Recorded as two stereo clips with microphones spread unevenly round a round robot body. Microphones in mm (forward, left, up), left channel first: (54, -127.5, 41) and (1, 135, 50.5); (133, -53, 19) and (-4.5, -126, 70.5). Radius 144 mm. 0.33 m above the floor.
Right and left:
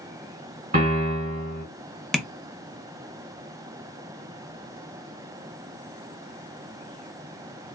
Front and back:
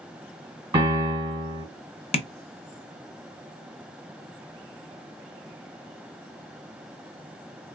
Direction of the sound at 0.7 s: 135° left.